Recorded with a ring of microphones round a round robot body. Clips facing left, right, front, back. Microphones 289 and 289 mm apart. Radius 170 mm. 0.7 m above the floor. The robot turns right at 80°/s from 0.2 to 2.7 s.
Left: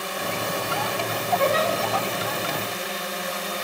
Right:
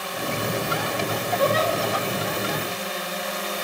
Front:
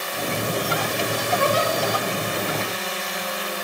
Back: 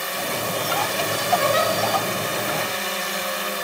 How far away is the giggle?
About 1.3 m.